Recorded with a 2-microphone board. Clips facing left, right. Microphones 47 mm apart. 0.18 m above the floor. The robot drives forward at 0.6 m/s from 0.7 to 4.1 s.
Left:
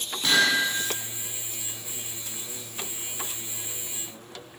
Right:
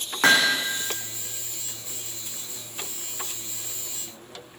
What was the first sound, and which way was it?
Hammering, 75° right (ahead or behind).